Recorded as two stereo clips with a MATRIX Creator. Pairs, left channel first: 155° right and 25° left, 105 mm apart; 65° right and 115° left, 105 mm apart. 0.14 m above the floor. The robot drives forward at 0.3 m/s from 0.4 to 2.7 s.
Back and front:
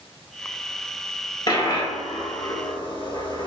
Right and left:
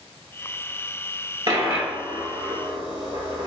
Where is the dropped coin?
160° left, 1.0 m; by 3.5 s 165° left, 1.4 m.